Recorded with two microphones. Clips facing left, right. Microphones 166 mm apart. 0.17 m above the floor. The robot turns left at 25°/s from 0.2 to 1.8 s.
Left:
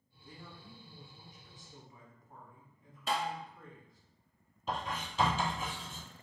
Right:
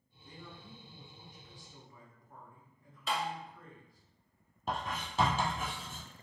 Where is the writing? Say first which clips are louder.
Even; 55° right (ahead or behind), 1.4 m.